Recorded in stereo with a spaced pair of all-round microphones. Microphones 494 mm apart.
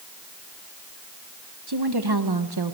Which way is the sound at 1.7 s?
50° right (ahead or behind).